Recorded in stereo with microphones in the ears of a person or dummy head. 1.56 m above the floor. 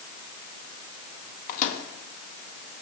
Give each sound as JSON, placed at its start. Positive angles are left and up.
{"t": 1.5, "sound": "a microwave", "side_deg": 50, "distance_m": 1.6}